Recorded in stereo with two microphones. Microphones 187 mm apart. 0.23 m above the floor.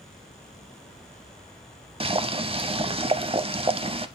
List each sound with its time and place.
2.0 s boiling: 30° right (ahead or behind), 0.6 m